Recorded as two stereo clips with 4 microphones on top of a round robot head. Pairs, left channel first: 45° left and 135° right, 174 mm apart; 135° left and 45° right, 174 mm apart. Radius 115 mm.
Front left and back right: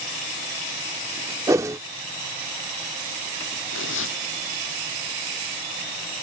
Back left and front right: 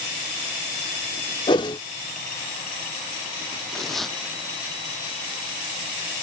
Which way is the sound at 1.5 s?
170° left.